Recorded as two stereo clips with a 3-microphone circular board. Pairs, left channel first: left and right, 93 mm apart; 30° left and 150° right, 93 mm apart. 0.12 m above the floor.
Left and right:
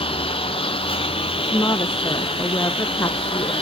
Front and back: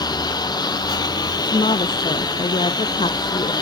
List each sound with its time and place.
0.0 s a lawn mower: 75° left
1.4 s a woman speaking: 40° left